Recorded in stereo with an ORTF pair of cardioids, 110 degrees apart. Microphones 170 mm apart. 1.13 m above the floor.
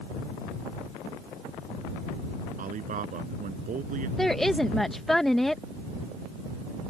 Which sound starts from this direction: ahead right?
A man speaking, at 2.6 s.